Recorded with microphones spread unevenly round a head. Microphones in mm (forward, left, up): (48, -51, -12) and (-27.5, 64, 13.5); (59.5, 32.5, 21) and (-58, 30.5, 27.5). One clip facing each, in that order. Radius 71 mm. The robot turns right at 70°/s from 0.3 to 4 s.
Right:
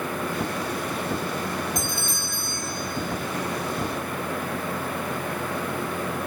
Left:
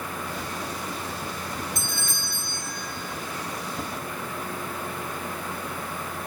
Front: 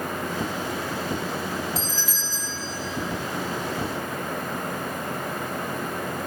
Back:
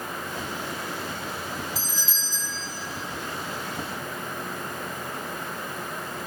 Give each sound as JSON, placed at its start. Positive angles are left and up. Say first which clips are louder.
{"t": 1.8, "sound": "a doorbell", "louder": "right 4 dB, front 5 dB", "azimuth_deg": 90, "distance_m": 3.0}